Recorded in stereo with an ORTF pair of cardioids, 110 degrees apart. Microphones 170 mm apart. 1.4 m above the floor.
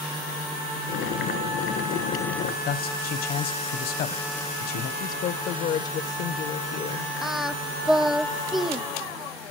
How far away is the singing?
About 0.5 m.